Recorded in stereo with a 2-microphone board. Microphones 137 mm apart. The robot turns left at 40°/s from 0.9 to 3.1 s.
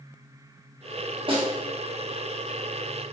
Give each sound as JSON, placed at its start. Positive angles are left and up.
{"t": 1.3, "sound": "a snare drum", "side_deg": -40, "distance_m": 0.7}